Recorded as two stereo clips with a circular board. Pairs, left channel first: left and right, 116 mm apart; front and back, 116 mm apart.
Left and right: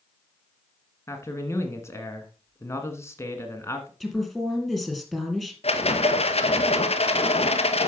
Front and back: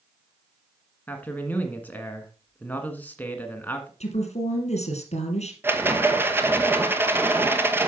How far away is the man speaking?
About 1.5 m.